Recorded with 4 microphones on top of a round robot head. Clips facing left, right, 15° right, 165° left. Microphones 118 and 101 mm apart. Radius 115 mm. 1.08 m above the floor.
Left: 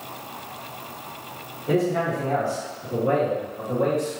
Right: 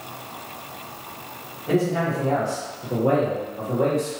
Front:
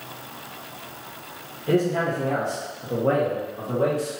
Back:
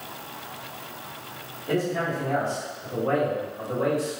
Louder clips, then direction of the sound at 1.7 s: Even, front 4 dB; 5° left.